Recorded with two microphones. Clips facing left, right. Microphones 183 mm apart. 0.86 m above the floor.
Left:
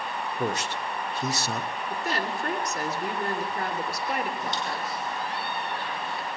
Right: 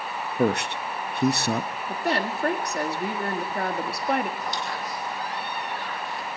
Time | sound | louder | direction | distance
0.4 | a man speaking | right 7 dB | 60° right (ahead or behind) | 0.6 m
1.9 | a woman speaking | right 5 dB | 60° right (ahead or behind) | 2 m
4.4 | a squeak | even | 25° left (ahead or behind) | 3 m